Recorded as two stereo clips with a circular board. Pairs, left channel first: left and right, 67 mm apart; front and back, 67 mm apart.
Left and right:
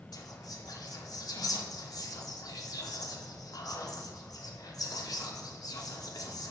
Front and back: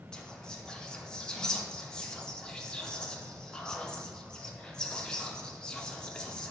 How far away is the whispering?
About 0.6 m.